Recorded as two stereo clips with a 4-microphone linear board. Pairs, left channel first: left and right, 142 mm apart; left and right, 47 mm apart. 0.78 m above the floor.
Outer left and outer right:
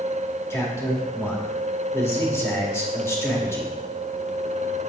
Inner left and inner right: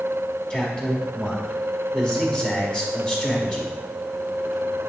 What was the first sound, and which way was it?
A man speaking, 20° left (ahead or behind).